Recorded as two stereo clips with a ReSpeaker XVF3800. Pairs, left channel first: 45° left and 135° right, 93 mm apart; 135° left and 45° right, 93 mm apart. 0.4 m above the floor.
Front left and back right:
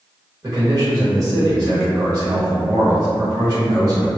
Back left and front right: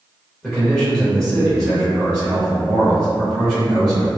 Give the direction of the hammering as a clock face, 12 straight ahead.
I don't hear hammering.